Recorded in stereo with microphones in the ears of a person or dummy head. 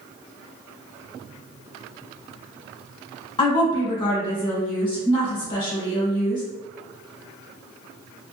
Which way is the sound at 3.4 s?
25° left (ahead or behind).